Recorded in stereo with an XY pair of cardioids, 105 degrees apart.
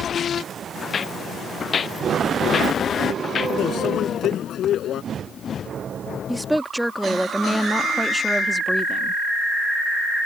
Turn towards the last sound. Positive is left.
turn(degrees=-5)